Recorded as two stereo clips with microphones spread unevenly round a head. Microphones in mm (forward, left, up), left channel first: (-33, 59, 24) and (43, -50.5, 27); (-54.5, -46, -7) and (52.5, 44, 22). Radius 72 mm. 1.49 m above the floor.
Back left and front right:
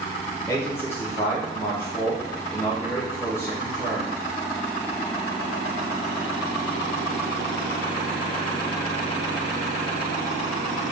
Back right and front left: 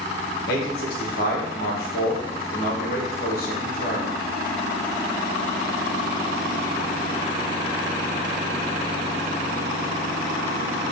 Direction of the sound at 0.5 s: 160° right.